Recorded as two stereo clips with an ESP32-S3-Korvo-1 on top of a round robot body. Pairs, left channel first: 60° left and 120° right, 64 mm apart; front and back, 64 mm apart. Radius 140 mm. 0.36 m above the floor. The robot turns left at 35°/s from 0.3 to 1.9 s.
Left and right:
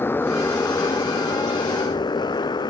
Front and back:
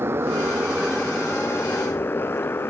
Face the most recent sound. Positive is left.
turn(degrees=60)